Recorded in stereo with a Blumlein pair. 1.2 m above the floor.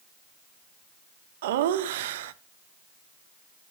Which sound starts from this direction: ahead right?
Laughter, at 1.4 s.